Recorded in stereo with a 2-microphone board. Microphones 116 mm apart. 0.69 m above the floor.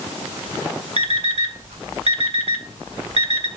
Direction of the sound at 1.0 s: 70° right (ahead or behind).